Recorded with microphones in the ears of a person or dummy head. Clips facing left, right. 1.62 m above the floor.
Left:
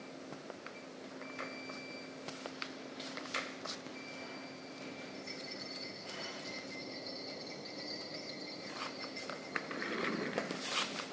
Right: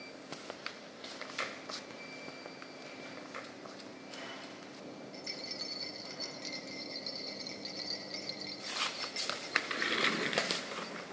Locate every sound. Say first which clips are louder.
5.1 s a rattle: even; 55° right (ahead or behind), 2 m